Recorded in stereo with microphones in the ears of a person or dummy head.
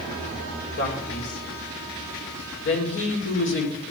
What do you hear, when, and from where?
0.8 s a man speaking: 70° left (ahead or behind), 3 m